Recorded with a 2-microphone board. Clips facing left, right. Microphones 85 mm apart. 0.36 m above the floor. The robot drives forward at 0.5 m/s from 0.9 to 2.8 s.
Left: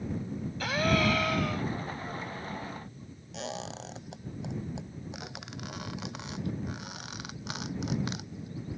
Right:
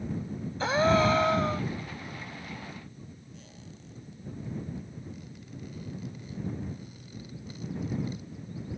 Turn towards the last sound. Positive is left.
turn(degrees=85)